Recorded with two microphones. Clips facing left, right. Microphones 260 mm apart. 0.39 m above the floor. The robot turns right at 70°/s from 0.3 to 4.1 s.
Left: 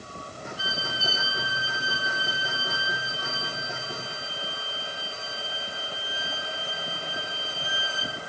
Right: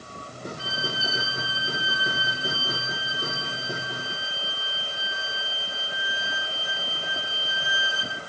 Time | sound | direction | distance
0.6 | a violin | 10° left | 1.5 m